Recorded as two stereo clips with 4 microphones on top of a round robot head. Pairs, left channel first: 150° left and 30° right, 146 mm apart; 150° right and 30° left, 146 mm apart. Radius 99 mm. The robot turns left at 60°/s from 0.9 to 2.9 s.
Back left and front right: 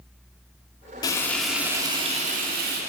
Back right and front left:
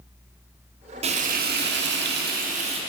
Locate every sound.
1.0 s frying: 85° left, 0.9 m; by 2.8 s 25° right, 0.9 m